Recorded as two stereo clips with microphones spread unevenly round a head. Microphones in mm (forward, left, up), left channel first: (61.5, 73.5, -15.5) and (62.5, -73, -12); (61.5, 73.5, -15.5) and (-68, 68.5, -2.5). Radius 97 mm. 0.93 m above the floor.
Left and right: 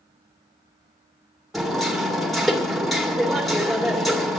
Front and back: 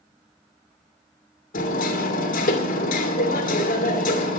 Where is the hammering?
Straight ahead, 2 m.